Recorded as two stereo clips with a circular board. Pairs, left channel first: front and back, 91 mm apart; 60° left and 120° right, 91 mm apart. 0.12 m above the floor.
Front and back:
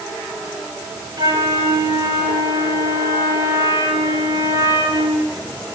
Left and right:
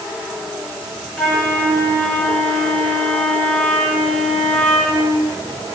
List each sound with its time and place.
1.2 s a flute: 140° left, 8.5 m